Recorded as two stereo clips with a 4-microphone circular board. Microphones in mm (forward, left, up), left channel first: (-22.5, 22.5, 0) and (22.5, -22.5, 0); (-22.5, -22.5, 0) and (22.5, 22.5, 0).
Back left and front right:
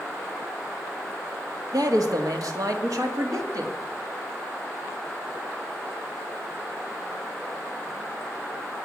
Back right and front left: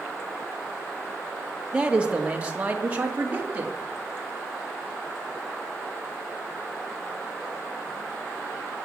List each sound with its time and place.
1.7 s a man speaking: 30° right, 1.6 m; by 3.7 s 20° right, 2.5 m